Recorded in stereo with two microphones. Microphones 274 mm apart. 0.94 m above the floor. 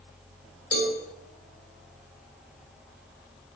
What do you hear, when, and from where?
0.7 s a cowbell: 55° left (ahead or behind), 2 m